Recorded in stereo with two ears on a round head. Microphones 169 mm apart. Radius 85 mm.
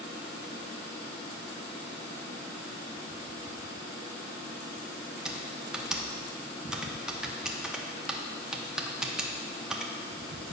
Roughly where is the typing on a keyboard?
Centre.